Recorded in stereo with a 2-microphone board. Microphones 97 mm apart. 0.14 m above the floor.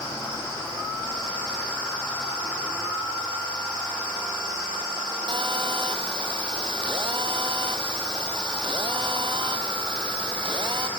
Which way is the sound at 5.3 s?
55° right (ahead or behind).